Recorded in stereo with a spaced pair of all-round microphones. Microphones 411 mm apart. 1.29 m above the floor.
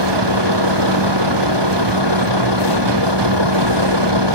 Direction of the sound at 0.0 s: 80° right.